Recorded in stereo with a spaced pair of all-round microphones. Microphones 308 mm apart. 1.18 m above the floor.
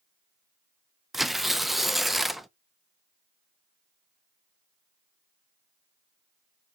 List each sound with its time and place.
1.1 s tearing paper: centre (ahead or behind), 0.6 m